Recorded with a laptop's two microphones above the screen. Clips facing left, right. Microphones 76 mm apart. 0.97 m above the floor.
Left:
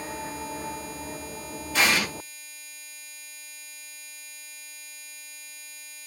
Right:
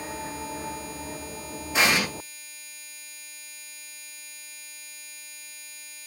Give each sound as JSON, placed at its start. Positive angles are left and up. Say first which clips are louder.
{"t": 1.7, "sound": "an explosion", "louder": "right 1 dB", "side_deg": -20, "distance_m": 1.2}